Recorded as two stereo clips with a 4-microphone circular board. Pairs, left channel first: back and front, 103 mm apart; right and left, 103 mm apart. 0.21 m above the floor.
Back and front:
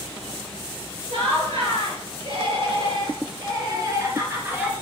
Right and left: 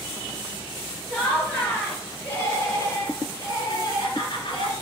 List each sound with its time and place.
1.1 s laughter: 10° right, 3.5 m; by 4.7 s 70° right, 2.0 m